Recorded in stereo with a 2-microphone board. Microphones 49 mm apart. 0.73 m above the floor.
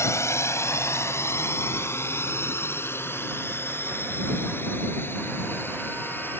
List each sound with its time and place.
0.0 s a drone: 70° left (ahead or behind); by 6.4 s 45° left (ahead or behind)